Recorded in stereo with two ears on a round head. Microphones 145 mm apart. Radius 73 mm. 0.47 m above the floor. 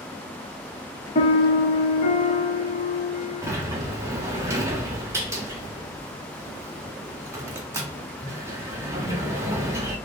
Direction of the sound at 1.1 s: 40° left (ahead or behind).